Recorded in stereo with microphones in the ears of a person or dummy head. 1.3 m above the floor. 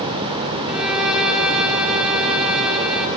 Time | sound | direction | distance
0.7 | a violin | 5° right (ahead or behind) | 4.5 m